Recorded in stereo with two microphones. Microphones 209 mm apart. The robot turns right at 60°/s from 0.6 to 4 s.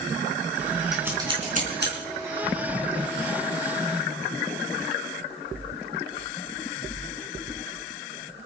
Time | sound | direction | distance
0.9 | scissors | centre (ahead or behind) | 4 m